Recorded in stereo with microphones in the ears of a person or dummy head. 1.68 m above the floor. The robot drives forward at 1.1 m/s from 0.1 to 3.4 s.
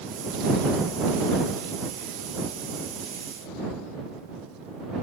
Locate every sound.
Only background noise.